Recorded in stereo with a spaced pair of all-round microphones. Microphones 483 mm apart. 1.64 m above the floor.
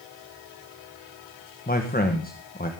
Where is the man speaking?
20° left (ahead or behind), 1.7 m.